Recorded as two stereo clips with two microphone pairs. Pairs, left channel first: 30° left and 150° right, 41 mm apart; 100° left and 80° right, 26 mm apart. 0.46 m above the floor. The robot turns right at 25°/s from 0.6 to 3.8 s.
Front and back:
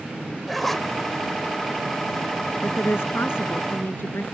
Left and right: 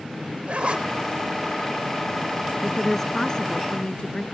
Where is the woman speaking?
15° left; by 4.2 s 45° left.